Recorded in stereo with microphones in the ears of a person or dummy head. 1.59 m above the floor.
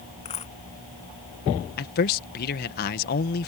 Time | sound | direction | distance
0.2 | a dropped coin | 30° left (ahead or behind) | ?
1.8 | a man speaking | 50° left (ahead or behind) | ?